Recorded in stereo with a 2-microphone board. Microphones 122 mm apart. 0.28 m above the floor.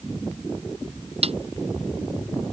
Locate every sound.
1.2 s a snare drum: 55° right (ahead or behind)